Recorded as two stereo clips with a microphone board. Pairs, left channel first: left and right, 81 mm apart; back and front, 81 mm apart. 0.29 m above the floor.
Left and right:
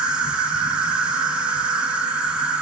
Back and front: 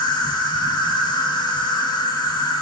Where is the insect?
165° right, 1.0 m.